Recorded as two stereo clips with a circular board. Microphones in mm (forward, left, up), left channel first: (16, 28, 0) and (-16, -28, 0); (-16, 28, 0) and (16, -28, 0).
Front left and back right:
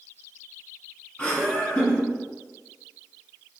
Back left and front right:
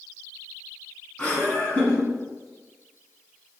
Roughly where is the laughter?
Left.